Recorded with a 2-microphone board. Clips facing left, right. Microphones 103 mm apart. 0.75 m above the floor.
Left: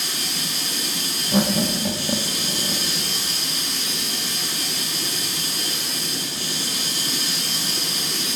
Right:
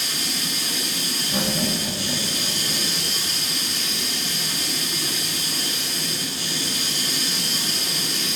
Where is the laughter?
30° left (ahead or behind), 1.0 m.